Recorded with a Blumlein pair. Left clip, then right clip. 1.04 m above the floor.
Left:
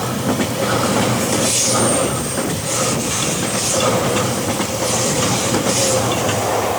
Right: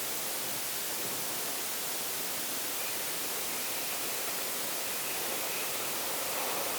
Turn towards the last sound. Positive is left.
No sound to turn to.